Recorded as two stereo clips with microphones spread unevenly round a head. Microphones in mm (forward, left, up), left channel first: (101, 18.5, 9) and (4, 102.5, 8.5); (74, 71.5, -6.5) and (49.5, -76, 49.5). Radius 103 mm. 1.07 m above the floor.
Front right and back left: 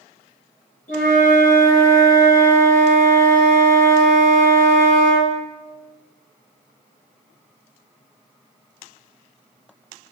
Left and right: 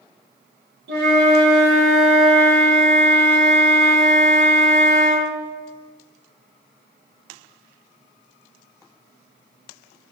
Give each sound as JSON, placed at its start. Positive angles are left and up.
{"t": 0.9, "sound": "a flute", "azimuth_deg": -90, "distance_m": 0.6}